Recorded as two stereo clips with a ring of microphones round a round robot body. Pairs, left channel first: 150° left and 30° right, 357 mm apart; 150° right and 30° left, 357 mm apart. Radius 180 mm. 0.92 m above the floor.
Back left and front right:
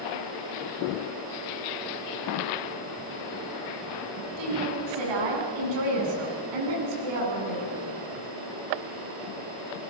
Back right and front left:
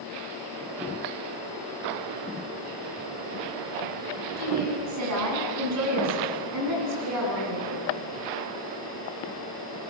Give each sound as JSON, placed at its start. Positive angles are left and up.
{"t": 4.4, "sound": "a woman speaking", "azimuth_deg": -15, "distance_m": 8.0}